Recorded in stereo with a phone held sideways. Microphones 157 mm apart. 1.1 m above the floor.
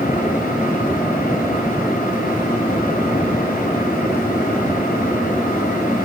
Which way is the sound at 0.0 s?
60° left (ahead or behind).